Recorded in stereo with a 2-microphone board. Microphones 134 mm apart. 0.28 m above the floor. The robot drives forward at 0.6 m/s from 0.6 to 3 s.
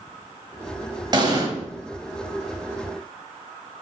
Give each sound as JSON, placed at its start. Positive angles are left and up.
{"t": 1.1, "sound": "an explosion", "side_deg": -30, "distance_m": 1.1}